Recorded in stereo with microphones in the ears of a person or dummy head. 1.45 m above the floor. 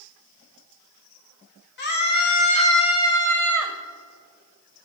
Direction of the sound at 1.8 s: 55° left (ahead or behind).